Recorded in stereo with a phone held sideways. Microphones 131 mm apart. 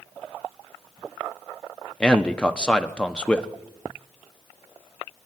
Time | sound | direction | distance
2.0 | a man speaking | 5° left (ahead or behind) | 0.9 m